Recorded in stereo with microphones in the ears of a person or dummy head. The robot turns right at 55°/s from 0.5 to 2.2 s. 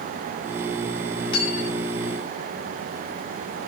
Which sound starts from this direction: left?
Cutlery clinking, at 1.3 s.